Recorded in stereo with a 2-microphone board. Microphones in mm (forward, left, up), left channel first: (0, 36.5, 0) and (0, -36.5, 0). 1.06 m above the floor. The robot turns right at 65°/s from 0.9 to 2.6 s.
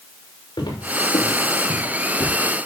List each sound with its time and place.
0.6 s footsteps: 65° left (ahead or behind), 6.5 m; by 2.3 s 30° left (ahead or behind), 4.5 m